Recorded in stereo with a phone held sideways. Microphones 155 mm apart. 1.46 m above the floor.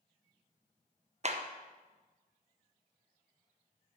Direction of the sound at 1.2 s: 45° right (ahead or behind).